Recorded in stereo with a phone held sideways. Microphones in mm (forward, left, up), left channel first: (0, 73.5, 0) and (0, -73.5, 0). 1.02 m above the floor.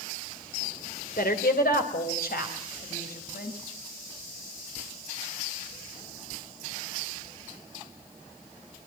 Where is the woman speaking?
85° left, 3 m; by 3.6 s 90° left, 6.5 m.